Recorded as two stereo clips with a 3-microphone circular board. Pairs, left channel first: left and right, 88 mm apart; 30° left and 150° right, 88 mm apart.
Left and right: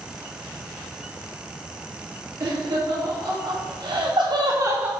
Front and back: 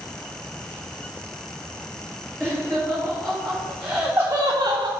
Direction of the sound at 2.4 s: 50° right.